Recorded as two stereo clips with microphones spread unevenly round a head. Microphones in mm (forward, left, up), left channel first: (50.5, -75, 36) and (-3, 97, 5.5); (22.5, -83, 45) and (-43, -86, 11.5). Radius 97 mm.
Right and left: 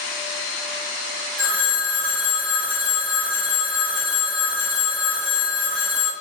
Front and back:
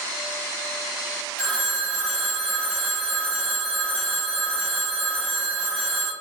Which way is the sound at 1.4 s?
70° left.